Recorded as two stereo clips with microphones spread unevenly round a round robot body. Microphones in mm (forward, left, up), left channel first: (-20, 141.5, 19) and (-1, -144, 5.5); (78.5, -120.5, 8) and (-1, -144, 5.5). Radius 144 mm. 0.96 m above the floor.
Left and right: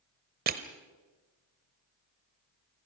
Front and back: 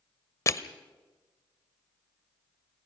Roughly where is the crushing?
Ahead right.